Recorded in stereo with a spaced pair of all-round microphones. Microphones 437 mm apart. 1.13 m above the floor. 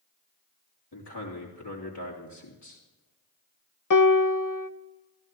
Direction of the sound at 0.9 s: 65° left (ahead or behind).